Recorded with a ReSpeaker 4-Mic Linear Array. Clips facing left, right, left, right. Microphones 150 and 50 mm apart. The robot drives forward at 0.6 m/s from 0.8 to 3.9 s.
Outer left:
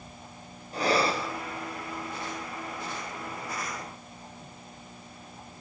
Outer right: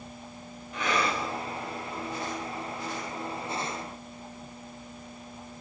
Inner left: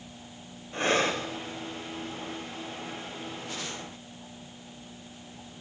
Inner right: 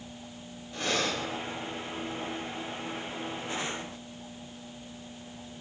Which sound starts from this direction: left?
Breathing, at 0.7 s.